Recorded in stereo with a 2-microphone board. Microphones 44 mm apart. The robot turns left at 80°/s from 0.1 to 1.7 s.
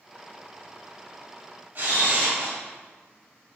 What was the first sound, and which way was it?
A camera shutter, 45° right (ahead or behind).